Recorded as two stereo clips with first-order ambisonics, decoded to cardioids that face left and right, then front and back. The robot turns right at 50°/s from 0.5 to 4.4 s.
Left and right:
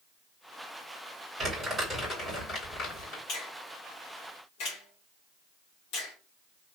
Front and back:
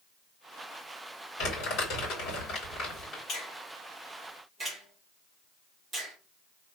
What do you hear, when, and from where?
1.4 s crumpling: 20° right, 3 m; by 3.2 s 70° left, 3 m
3.3 s a finger snap: 55° left, 2.0 m; by 6.2 s 110° left, 2.0 m